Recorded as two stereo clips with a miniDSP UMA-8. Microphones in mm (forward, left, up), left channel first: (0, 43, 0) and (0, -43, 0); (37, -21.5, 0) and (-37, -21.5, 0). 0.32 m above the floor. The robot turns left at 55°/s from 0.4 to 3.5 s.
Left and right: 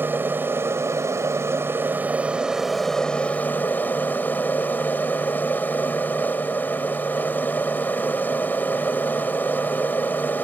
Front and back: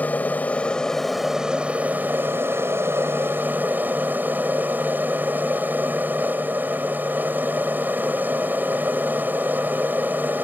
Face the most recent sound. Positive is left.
turn(degrees=140)